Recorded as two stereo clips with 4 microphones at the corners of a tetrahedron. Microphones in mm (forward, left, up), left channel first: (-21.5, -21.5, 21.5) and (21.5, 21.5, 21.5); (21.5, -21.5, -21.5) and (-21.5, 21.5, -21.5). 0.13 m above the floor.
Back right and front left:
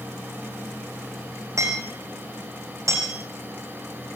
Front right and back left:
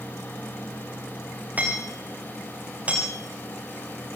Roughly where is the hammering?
Left.